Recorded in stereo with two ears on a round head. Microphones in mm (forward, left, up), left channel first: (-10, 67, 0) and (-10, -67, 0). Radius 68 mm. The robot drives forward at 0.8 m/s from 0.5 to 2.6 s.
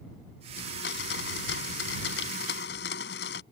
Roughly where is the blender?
Left.